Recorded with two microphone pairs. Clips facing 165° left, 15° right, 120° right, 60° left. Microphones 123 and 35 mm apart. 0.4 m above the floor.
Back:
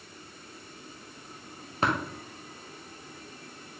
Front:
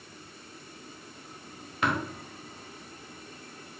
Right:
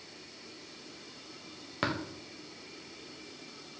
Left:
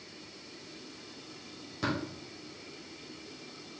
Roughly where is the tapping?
Behind right.